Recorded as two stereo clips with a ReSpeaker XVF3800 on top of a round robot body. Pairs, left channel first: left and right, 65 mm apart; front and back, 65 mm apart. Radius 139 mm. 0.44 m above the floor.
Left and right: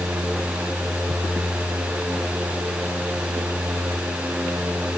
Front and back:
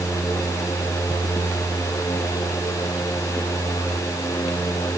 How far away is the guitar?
No guitar in this recording.